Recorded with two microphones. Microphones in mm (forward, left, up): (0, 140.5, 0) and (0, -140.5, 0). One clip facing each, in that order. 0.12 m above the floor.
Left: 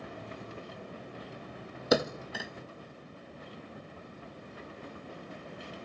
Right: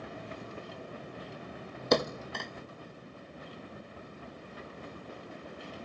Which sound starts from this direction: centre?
A thud, at 1.9 s.